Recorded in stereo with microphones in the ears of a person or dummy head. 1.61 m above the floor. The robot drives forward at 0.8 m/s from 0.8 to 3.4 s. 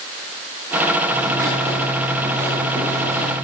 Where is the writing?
20° right (ahead or behind), 5.5 m; by 3.4 s 15° right (ahead or behind), 7 m.